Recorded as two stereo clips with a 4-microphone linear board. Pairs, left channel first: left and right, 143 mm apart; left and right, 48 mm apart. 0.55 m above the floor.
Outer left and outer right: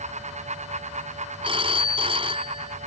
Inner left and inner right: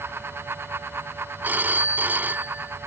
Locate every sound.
1.4 s a phone ringing: 40° right (ahead or behind)